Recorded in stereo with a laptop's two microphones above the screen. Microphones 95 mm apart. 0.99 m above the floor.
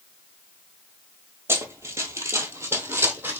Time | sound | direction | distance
1.5 | running footsteps | 30° right (ahead or behind) | 1.1 m